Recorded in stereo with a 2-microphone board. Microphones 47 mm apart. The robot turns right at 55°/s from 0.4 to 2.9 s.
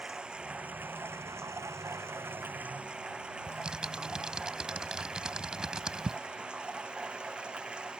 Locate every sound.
0.0 s running water: 160° right; by 8.0 s 20° right
3.5 s typing on a keyboard: 15° right (ahead or behind)